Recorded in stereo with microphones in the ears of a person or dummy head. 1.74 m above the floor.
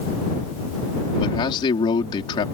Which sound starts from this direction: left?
A man speaking, at 1.2 s.